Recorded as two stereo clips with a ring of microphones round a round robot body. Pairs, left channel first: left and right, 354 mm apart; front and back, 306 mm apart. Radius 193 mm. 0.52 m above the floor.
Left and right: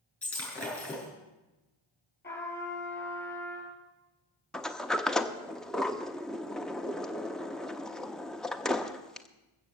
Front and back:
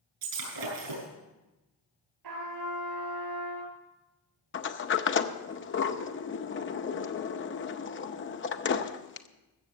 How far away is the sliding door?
About 0.8 m.